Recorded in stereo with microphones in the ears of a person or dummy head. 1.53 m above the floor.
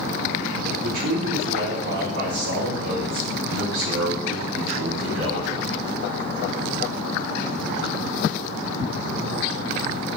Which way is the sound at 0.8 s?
80° right.